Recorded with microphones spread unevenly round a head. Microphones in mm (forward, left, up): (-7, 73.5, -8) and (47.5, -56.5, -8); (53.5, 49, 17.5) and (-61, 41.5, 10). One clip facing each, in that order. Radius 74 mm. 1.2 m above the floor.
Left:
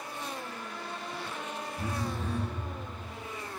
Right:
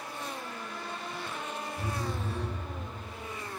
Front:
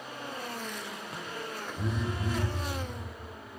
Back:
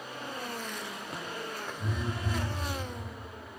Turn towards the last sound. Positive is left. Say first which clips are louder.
# left 2 dB, front 4 dB
turn(degrees=15)